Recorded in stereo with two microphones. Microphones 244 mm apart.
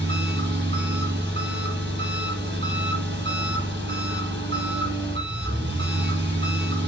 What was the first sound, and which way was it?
An engine running, 45° right (ahead or behind).